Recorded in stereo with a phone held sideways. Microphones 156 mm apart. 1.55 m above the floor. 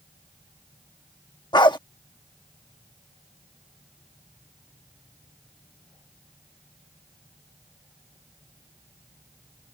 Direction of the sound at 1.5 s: 30° left (ahead or behind).